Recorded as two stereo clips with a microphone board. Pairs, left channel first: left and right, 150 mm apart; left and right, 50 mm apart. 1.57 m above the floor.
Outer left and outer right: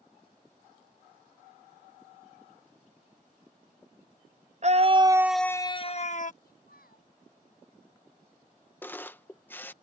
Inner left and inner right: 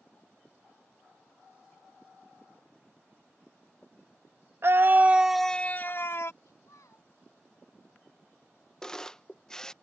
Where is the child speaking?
85° left.